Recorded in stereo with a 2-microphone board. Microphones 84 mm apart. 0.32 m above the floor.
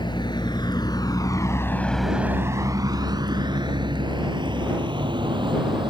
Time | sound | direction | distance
0.0 | a vehicle | 70° left (ahead or behind) | ?